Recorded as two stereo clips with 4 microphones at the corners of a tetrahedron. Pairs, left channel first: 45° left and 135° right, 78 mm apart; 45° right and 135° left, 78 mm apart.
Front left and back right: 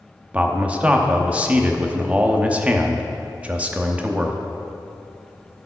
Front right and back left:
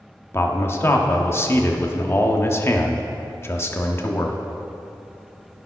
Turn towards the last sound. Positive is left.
turn(degrees=-75)